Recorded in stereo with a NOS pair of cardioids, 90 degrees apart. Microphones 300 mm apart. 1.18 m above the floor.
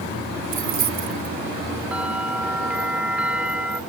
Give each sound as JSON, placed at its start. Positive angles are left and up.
{"t": 0.5, "sound": "keys jangling", "azimuth_deg": -65}
{"t": 1.9, "sound": "a bell", "azimuth_deg": -5}